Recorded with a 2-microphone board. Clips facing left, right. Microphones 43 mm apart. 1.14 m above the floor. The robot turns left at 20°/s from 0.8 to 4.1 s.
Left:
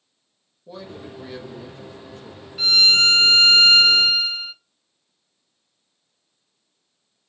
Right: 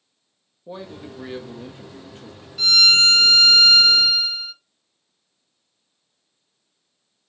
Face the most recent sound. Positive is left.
turn(degrees=125)